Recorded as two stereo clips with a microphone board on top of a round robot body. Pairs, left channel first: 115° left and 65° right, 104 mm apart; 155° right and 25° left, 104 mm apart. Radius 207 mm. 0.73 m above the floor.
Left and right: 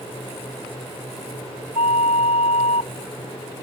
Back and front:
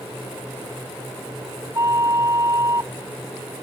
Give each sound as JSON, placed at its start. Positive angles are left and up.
{"t": 1.8, "sound": "a flute", "azimuth_deg": 85}